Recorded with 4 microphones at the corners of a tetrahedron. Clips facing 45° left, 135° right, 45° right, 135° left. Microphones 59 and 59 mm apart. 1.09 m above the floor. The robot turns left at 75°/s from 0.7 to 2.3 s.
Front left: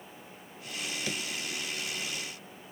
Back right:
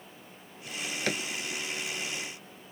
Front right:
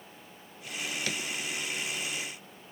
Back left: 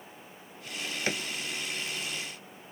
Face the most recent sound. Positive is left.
turn(degrees=100)